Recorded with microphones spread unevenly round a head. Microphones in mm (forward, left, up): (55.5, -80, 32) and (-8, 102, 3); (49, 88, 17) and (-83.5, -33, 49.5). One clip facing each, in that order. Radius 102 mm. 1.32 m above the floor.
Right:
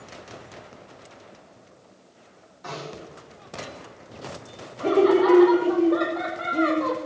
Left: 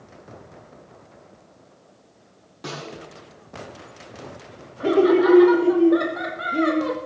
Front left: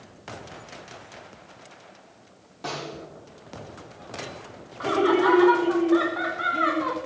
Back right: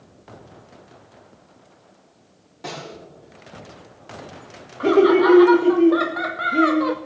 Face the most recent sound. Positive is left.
turn(degrees=180)